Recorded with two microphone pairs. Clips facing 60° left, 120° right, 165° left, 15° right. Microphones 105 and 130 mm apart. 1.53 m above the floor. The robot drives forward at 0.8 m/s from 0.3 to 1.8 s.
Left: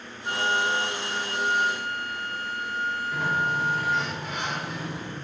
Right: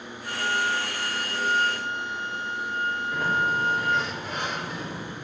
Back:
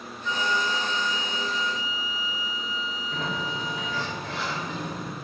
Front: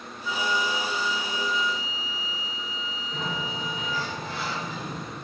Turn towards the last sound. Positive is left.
turn(degrees=155)